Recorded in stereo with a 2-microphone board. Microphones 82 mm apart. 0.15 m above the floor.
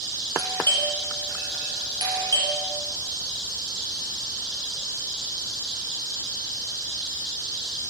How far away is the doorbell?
About 5 m.